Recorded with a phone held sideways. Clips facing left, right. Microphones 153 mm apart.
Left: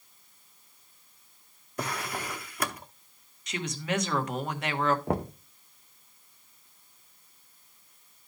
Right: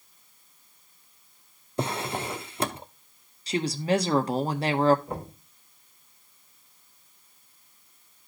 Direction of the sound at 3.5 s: 35° right (ahead or behind).